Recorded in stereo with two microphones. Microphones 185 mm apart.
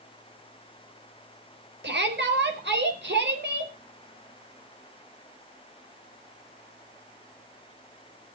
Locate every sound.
1.8 s a shout: 70° right (ahead or behind), 4.5 m